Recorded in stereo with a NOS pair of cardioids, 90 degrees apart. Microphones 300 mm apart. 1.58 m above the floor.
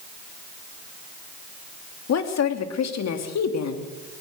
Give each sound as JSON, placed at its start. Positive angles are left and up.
{"t": 2.1, "sound": "a woman speaking", "azimuth_deg": 60, "distance_m": 3.0}